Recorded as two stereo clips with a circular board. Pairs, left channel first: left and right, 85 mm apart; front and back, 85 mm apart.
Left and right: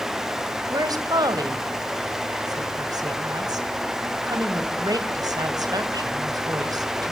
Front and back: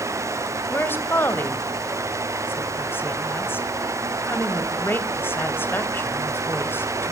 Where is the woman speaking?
60° right, 2.5 m.